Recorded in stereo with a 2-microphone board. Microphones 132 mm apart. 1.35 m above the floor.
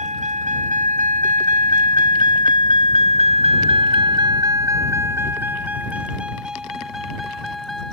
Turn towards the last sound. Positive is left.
turn(degrees=0)  # may be behind; listen again after turning